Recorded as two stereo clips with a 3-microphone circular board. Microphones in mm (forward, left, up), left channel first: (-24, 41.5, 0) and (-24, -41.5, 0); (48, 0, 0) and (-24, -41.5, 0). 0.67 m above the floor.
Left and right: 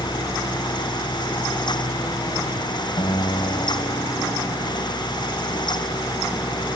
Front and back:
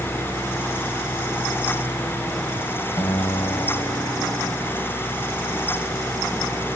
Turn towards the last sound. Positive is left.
turn(degrees=70)